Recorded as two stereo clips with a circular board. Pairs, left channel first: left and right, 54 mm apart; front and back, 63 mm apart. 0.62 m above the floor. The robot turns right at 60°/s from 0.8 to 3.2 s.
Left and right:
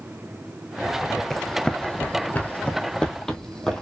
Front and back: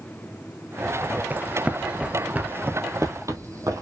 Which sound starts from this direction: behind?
Running footsteps, at 1.3 s.